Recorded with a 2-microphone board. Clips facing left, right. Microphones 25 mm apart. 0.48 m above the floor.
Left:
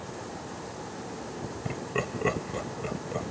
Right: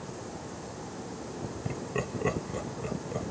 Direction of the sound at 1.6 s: 20° left (ahead or behind).